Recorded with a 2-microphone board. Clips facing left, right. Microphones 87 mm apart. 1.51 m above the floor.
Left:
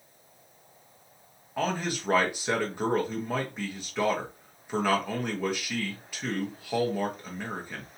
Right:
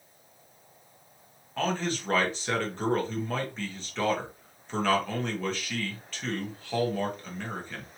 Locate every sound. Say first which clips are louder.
1.6 s a man speaking: even; 15° left (ahead or behind), 1.3 m